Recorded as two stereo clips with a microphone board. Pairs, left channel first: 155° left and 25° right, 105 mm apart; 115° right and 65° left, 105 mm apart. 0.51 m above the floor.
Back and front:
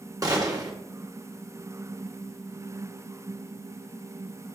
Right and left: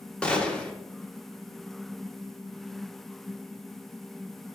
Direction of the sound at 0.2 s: 40° right.